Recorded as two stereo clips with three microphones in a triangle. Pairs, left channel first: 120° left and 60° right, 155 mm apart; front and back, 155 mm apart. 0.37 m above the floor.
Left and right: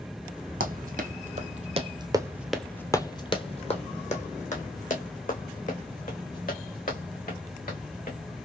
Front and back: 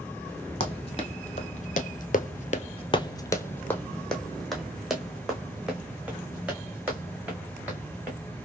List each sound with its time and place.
0.6 s running footsteps: 50° right, 1.1 m; by 8.2 s 100° left, 3 m